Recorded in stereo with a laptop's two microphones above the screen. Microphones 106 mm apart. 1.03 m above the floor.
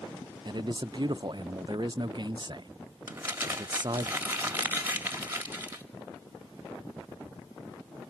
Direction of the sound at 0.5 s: 45° right (ahead or behind).